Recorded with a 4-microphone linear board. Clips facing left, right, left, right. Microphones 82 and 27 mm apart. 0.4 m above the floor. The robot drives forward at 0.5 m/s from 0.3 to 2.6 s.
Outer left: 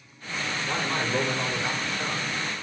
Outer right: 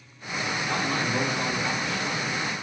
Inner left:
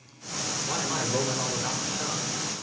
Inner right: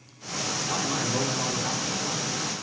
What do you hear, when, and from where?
0.7 s a man speaking: 40° left (ahead or behind), 1.5 m; by 2.2 s 35° left (ahead or behind), 1.6 m